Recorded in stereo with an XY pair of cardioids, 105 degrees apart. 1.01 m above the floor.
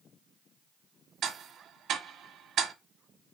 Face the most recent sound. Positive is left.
turn(degrees=-65)